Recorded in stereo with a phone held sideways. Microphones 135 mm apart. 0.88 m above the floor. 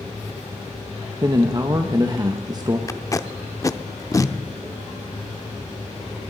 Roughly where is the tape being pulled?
Left.